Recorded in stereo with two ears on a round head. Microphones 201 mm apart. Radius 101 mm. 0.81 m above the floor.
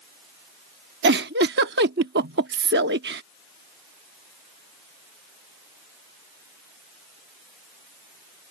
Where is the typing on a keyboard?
I don't hear typing on a keyboard.